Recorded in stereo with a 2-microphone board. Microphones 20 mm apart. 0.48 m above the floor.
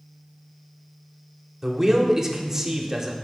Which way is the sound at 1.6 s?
20° right (ahead or behind).